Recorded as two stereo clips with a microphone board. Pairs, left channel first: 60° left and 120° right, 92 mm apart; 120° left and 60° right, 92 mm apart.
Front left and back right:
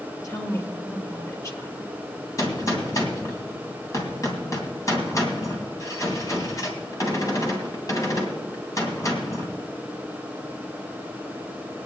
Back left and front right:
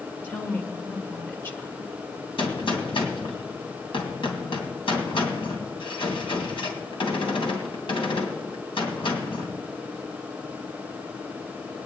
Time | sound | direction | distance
0.2 | a woman speaking | 70° left | 1.5 m
2.4 | a gunshot | 110° left | 2.5 m